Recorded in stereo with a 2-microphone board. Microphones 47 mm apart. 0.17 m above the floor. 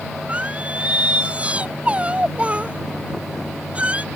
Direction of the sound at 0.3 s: 25° right (ahead or behind).